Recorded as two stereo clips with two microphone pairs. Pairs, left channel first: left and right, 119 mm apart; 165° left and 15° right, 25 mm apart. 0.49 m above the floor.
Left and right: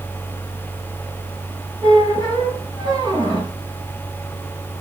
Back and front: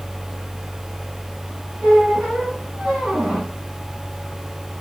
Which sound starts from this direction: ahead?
A squeak, at 1.8 s.